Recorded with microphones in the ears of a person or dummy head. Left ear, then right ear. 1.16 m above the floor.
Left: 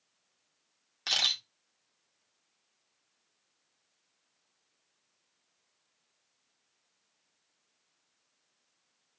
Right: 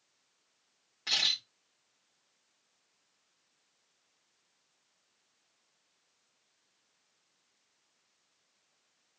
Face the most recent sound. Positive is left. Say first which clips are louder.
# left 1 dB
turn(degrees=70)  # may be behind; listen again after turning